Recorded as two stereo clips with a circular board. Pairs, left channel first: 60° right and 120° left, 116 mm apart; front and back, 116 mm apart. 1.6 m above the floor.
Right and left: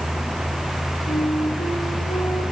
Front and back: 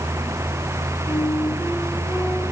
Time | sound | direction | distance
1.1 | a flute | 65° right | 5 m